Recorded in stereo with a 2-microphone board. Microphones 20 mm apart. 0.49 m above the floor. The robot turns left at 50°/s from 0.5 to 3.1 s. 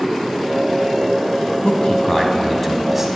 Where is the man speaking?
55° left, 3.5 m; by 3.1 s 15° right, 3.5 m.